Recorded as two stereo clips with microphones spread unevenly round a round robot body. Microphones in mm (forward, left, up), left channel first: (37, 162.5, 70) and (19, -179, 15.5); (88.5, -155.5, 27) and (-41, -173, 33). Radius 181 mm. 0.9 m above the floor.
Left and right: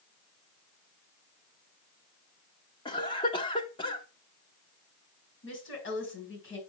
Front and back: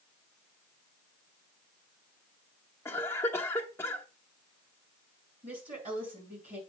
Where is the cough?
15° left, 1.0 m.